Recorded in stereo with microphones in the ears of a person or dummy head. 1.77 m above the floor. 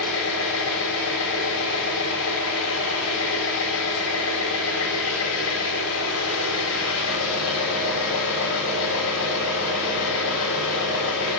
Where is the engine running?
80° left, 9 m.